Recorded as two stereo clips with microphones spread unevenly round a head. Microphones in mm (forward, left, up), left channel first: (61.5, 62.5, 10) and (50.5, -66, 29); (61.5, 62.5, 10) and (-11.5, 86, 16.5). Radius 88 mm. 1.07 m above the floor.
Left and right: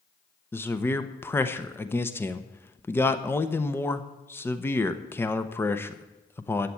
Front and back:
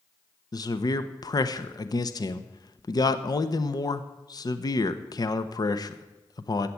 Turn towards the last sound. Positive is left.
turn(degrees=15)